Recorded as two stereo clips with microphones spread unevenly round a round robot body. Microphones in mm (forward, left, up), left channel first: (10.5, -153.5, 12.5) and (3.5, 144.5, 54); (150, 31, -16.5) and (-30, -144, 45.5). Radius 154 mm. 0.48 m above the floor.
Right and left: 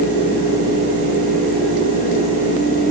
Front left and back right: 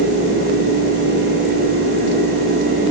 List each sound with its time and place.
Only background noise.